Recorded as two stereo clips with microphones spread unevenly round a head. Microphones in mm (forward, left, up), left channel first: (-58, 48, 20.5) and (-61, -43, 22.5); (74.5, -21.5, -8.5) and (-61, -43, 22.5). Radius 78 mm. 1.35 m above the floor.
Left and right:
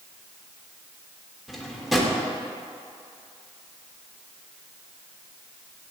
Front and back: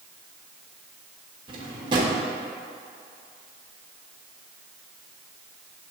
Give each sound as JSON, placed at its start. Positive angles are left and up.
{"t": 1.5, "sound": "a drawer", "azimuth_deg": 180, "distance_m": 0.8}